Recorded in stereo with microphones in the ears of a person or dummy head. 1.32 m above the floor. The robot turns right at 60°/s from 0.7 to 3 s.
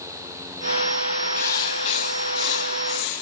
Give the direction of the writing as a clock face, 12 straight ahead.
11 o'clock.